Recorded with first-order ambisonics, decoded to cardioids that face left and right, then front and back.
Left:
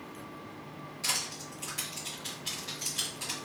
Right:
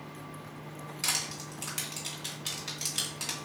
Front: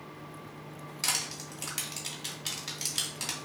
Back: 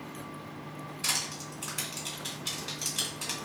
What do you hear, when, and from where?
1.0 s crushing: 35° right, 1.8 m